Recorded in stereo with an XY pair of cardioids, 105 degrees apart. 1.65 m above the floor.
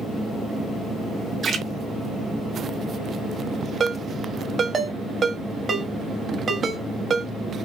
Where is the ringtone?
45° right, 2 m.